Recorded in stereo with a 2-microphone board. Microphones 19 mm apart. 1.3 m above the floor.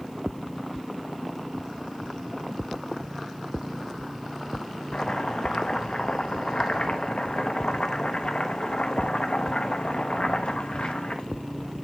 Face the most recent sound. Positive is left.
turn(degrees=70)  # may be behind; listen again after turning